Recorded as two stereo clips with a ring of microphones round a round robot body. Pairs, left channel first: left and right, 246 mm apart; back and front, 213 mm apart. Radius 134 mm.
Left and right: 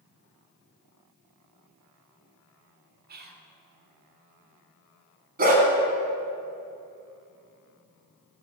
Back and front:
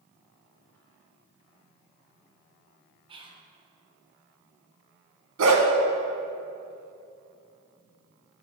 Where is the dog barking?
35° right, 2 m.